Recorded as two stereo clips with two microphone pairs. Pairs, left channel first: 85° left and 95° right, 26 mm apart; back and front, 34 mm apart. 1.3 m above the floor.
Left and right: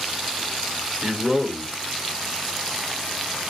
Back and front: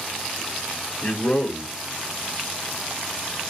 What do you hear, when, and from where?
1.0 s a man speaking: 140° right, 4 m